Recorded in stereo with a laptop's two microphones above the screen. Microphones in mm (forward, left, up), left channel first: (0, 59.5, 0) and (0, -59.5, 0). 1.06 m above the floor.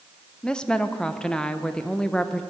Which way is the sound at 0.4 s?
5° left (ahead or behind).